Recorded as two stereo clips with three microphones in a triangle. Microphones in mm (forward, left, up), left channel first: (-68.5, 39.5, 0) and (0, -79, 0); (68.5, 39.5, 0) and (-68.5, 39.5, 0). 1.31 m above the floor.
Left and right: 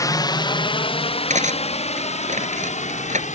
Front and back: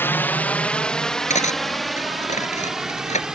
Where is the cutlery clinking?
30° right.